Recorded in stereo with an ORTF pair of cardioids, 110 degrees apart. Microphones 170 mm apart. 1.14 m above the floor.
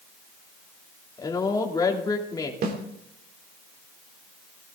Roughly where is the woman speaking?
Ahead.